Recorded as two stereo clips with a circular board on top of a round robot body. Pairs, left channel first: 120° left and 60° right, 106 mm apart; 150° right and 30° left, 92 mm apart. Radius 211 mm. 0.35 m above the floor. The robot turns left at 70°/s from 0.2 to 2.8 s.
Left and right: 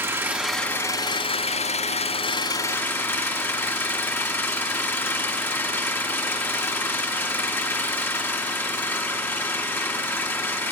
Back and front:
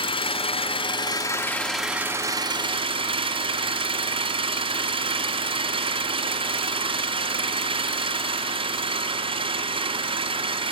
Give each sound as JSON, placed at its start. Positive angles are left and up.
{"t": 0.0, "sound": "an engine running", "azimuth_deg": -130, "distance_m": 4.5}